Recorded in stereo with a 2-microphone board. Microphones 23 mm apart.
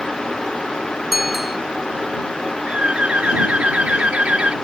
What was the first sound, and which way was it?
A bicycle bell, 5° right (ahead or behind).